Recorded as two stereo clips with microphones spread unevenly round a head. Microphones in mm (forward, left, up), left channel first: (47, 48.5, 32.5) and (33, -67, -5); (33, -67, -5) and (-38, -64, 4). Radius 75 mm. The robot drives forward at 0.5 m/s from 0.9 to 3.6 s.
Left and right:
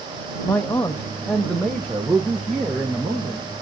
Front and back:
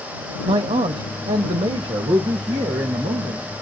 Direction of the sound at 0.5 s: 165° left.